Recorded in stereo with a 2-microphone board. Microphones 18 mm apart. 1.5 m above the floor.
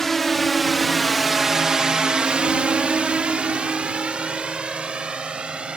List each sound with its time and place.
0.0 s a drone: 15° left (ahead or behind); by 5.8 s 60° right (ahead or behind)